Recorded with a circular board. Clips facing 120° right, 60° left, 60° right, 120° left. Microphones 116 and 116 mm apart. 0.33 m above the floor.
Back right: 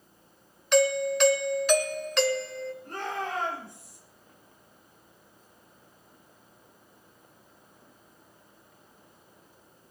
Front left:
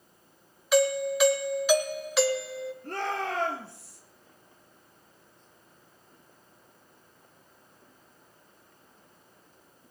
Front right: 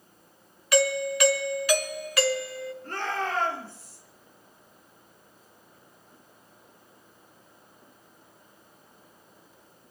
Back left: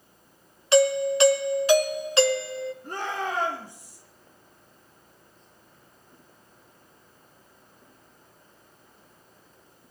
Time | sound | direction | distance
0.7 | a doorbell | 135° left | 1.4 m
2.8 | a shout | 45° left | 5.5 m